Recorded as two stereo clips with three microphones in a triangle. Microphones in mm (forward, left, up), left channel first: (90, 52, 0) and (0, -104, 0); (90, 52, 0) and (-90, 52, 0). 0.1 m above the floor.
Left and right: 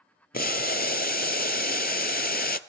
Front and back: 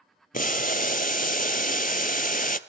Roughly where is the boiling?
Ahead left.